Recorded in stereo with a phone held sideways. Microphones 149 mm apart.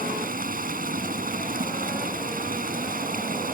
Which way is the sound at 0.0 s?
75° right (ahead or behind).